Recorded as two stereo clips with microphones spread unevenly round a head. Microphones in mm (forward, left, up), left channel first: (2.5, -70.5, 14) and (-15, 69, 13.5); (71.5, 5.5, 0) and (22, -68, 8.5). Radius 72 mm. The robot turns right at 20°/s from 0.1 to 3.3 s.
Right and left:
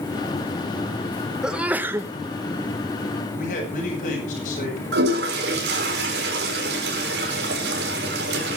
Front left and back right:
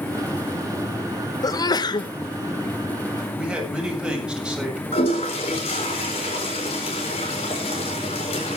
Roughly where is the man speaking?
Ahead right.